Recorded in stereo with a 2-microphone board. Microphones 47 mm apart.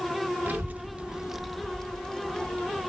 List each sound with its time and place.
0.5 s a child speaking: 35° right (ahead or behind), 0.6 m; by 2.9 s 15° left (ahead or behind), 1.9 m